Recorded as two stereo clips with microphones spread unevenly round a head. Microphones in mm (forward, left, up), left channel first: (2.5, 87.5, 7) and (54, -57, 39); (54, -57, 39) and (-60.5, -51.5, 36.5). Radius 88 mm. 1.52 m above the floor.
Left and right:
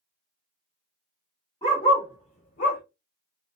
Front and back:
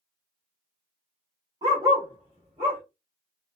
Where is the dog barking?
170° right, 1.4 m; by 2.8 s 105° left, 1.5 m.